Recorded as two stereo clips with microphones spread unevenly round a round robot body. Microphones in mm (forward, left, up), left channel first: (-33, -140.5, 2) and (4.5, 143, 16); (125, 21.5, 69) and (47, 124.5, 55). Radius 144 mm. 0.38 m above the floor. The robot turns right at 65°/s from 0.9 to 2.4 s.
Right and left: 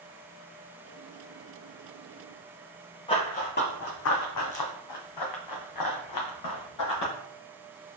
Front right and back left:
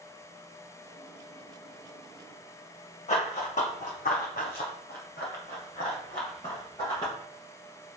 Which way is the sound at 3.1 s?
25° right.